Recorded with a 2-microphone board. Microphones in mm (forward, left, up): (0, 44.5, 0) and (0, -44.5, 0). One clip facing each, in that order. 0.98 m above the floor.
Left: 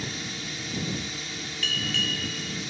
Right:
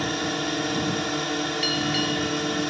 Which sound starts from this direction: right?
A drone, at 0.0 s.